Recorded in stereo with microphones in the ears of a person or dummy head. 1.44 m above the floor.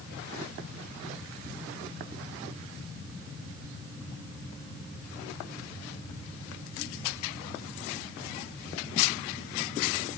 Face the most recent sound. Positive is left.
No sound to turn to.